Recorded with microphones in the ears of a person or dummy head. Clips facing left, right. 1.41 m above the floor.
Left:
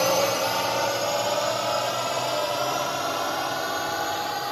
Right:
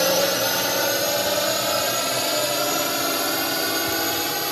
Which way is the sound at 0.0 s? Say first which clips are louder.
Right 2 dB; 15° right (ahead or behind).